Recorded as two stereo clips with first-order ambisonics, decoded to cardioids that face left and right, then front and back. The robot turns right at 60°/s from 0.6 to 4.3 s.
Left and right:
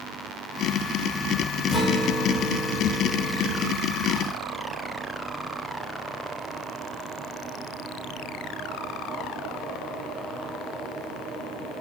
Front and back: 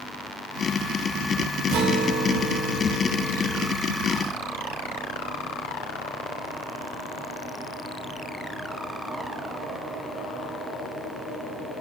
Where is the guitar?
160° left, 1.0 m; by 3.7 s 80° right, 1.0 m.